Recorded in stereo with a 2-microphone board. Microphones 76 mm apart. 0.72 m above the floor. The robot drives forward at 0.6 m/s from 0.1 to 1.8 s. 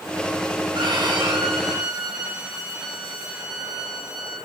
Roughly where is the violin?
Right.